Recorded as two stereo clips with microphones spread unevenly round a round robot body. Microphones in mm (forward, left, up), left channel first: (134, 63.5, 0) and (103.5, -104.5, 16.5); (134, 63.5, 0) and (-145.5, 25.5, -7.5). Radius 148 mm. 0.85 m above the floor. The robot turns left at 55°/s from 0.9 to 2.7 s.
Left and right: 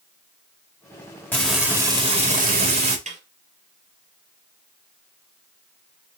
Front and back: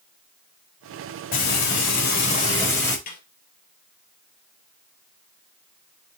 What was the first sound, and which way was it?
Frying, straight ahead.